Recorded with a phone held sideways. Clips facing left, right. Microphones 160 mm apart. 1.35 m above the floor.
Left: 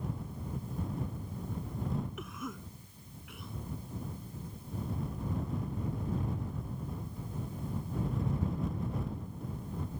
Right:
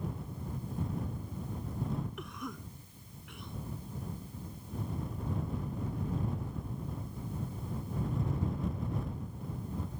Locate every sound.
2.2 s a cough: 5° left (ahead or behind)